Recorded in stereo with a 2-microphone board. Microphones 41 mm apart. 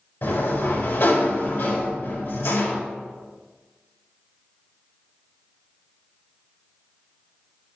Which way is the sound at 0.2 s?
75° left (ahead or behind).